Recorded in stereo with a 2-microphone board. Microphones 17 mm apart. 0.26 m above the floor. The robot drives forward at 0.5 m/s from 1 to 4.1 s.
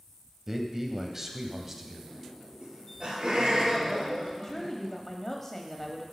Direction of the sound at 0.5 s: 20° right (ahead or behind).